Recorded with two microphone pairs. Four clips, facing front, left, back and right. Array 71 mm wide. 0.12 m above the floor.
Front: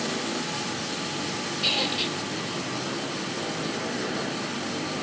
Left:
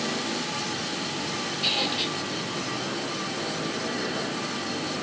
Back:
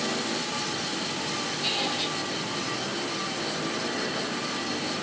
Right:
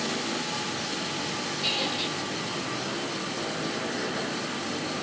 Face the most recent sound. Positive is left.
turn(degrees=25)